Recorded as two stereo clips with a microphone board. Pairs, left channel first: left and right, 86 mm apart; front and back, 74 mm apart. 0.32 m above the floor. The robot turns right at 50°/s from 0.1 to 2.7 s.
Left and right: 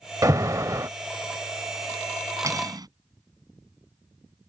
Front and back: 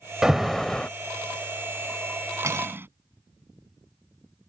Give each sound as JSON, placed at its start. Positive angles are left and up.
{"t": 0.2, "sound": "an alarm", "azimuth_deg": -105}
{"t": 2.4, "sound": "cutlery clinking", "azimuth_deg": -135}